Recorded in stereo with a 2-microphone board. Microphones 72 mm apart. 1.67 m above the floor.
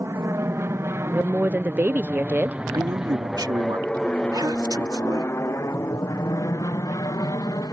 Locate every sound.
0.0 s an aircraft: 45° right (ahead or behind); by 7.7 s 60° left (ahead or behind)
1.1 s a woman speaking: 25° right (ahead or behind)
2.7 s a man speaking: 80° right